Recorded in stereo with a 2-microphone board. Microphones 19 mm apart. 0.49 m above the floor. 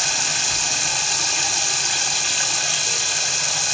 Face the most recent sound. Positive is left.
turn(degrees=10)  # may be behind; listen again after turning